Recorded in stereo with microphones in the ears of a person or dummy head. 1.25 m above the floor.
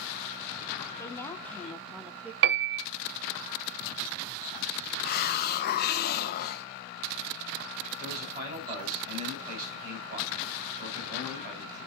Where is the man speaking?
40° right (ahead or behind), 5.5 m.